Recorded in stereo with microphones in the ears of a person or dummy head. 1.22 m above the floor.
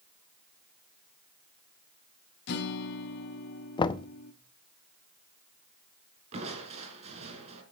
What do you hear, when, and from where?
2.5 s a guitar: 60° left (ahead or behind), 1.4 m
3.8 s knocking: 25° left (ahead or behind), 0.5 m
6.3 s crushing: 35° right (ahead or behind), 3 m